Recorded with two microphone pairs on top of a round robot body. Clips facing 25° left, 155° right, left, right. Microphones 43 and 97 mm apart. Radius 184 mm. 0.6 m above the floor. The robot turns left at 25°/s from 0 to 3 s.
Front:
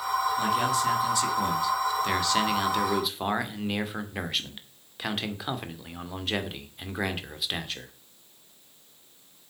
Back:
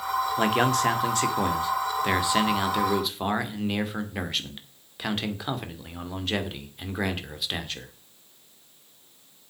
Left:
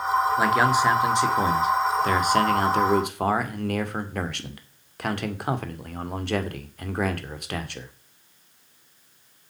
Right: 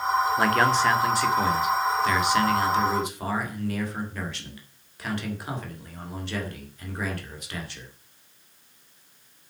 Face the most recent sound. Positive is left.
turn(degrees=115)